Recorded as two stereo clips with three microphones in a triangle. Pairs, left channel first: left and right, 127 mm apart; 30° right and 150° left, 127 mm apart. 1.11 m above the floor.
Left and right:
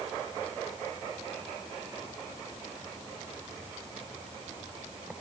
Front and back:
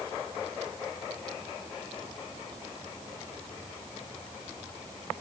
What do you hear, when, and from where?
Only background noise.